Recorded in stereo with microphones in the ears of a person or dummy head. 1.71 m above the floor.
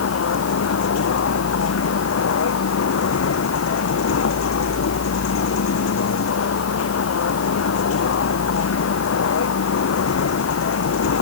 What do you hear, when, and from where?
0.0 s a vehicle: 85° left